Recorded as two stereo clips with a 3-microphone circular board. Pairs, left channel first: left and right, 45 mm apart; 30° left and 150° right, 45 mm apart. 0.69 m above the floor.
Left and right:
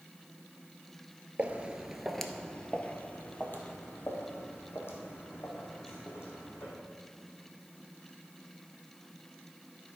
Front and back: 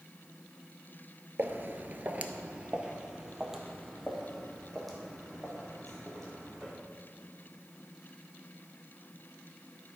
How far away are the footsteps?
About 0.9 m.